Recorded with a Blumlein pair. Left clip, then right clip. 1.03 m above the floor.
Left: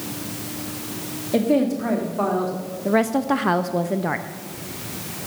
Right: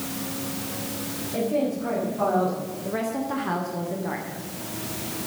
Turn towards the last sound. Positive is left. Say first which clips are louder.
# left 9 dB
turn(degrees=65)